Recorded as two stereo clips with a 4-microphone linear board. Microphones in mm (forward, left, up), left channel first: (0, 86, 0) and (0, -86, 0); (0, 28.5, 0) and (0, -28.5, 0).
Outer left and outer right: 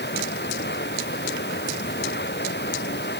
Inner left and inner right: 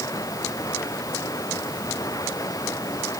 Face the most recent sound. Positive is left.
turn(degrees=85)